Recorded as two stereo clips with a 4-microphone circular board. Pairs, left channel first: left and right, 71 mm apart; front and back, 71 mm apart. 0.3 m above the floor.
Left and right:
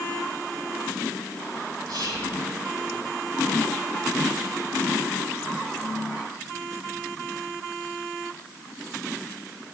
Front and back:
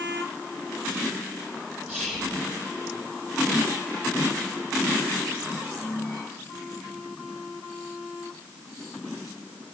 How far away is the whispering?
About 9 m.